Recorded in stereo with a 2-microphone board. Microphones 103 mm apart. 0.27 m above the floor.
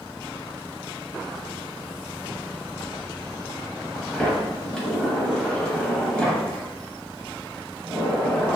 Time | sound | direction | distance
4.1 | a sliding door | 10° left (ahead or behind) | 0.7 m